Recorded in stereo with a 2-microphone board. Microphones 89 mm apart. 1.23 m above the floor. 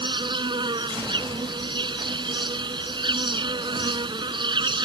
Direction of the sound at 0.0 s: 60° right (ahead or behind).